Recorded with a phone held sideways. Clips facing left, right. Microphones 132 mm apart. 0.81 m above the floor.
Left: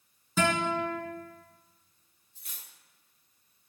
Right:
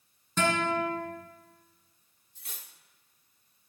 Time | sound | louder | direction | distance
0.4 | a guitar | even | 5° left (ahead or behind) | 3.5 m
2.4 | cutlery clinking | right 3 dB | 85° right | 1.0 m